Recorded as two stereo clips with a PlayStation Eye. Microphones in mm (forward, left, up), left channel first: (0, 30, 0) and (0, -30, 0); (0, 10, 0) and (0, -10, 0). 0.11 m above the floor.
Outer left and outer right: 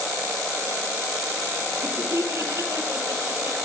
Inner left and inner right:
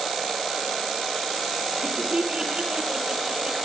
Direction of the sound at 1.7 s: 65° right (ahead or behind).